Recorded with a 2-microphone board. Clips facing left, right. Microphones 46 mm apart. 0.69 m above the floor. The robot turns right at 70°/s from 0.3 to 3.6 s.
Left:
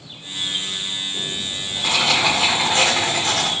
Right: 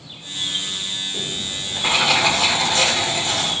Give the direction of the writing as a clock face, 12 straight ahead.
3 o'clock.